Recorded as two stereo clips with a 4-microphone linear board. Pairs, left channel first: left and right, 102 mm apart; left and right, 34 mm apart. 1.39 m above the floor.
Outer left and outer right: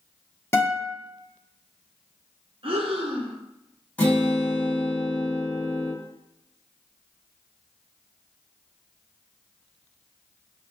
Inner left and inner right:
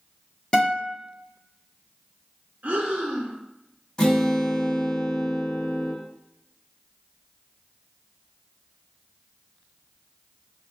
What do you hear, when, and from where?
0.5 s a guitar: 25° left (ahead or behind), 0.9 m
2.6 s breathing: 60° right (ahead or behind), 0.8 m
4.0 s a guitar: 20° left (ahead or behind), 1.5 m